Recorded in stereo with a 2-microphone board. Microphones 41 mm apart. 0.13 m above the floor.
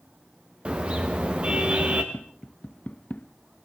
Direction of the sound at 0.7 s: 30° right (ahead or behind).